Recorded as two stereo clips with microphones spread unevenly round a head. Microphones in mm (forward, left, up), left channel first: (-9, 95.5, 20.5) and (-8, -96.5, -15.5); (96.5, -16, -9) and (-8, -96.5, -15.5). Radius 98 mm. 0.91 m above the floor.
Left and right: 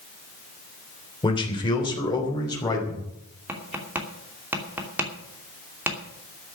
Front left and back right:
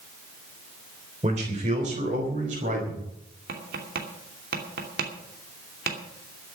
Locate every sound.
1.2 s a man speaking: 160° left, 3 m
3.5 s tapping: 170° right, 2.5 m